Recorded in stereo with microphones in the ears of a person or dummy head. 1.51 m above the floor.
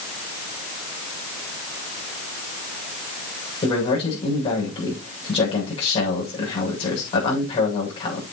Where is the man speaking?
30° left (ahead or behind), 7.5 m.